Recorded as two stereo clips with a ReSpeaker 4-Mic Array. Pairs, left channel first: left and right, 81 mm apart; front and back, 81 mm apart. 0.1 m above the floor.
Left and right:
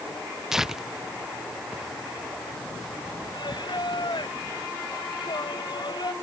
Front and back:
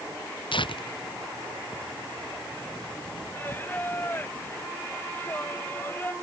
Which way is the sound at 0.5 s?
5° right.